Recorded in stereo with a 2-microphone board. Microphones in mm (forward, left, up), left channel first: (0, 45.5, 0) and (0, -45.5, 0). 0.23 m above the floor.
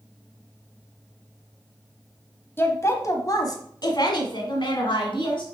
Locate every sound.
2.6 s a woman speaking: 25° left (ahead or behind), 1.0 m; by 5.5 s 65° left (ahead or behind), 2 m